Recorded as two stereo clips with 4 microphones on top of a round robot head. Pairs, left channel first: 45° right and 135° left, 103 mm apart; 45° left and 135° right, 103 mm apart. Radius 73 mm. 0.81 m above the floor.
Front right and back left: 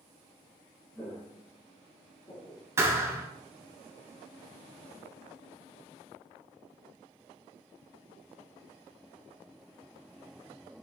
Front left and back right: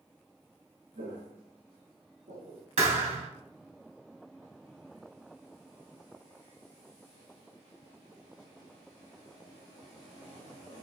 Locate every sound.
0.9 s footsteps: 110° right, 3.5 m
2.8 s a thud: 160° right, 2 m